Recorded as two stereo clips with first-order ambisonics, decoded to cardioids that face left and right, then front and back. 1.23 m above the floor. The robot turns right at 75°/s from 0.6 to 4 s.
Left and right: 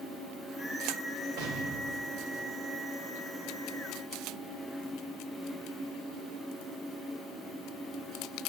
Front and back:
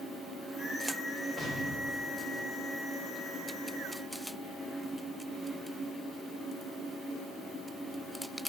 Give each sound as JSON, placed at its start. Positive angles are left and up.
{"t": 1.4, "sound": "an explosion", "azimuth_deg": -90, "distance_m": 1.1}